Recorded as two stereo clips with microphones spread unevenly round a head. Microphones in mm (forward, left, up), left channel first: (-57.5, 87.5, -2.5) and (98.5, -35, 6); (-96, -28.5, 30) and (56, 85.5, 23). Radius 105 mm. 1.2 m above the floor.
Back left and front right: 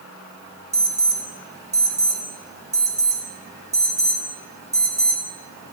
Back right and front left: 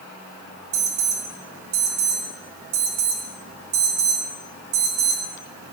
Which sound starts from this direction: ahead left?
An alarm, at 0.7 s.